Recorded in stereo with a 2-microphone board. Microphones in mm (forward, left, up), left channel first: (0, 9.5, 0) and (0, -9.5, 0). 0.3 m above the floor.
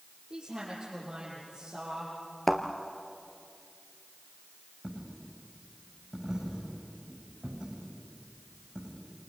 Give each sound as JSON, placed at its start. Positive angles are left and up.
{"t": 0.3, "sound": "a woman speaking", "side_deg": -35, "distance_m": 7.5}
{"t": 2.5, "sound": "a thud", "side_deg": 15, "distance_m": 1.7}
{"t": 4.8, "sound": "a dropped coin", "side_deg": -35, "distance_m": 9.0}